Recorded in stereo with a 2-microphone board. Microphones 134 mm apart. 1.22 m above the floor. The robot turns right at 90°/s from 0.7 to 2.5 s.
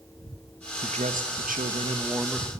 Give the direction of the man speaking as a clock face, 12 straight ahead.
5 o'clock.